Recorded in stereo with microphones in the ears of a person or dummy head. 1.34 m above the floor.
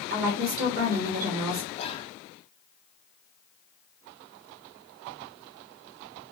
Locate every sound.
0.1 s a woman speaking: 50° right (ahead or behind), 1.5 m
1.8 s whispering: 25° left (ahead or behind), 0.6 m